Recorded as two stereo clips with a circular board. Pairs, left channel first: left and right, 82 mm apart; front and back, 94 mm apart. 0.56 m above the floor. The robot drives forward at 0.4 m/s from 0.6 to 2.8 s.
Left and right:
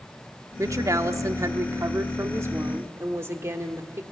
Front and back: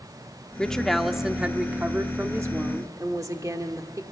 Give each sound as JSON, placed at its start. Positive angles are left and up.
{"t": 0.6, "sound": "a woman speaking", "azimuth_deg": -75, "distance_m": 1.0}